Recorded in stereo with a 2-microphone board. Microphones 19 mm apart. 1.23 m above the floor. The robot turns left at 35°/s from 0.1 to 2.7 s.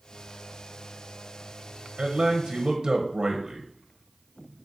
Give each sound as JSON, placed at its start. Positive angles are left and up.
{"t": 2.0, "sound": "a man speaking", "side_deg": -50, "distance_m": 0.8}